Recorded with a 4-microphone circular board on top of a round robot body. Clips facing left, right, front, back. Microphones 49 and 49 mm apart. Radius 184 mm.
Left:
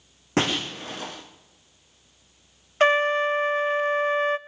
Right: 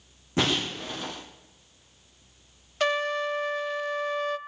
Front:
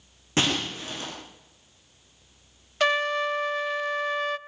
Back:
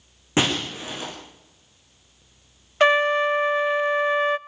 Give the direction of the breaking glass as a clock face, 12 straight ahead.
9 o'clock.